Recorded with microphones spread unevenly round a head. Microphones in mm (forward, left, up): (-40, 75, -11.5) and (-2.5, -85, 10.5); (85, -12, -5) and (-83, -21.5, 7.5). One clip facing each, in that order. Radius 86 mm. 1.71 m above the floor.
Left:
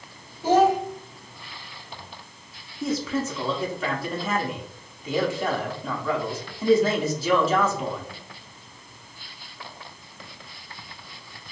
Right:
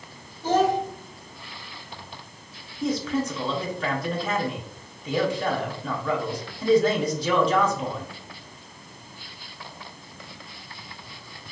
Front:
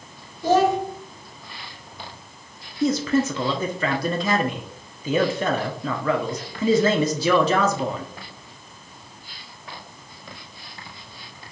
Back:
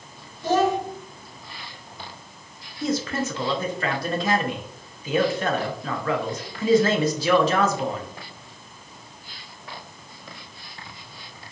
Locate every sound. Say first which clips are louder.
0.4 s a child speaking: left 3 dB, front 3 dB; 15° left, 1.6 m
2.8 s a man speaking: right 1 dB, front 5 dB; 15° left, 0.8 m